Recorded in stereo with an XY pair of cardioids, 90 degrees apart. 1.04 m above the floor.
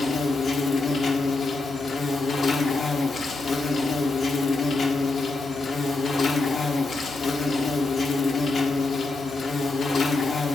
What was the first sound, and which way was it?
An insect, 55° left.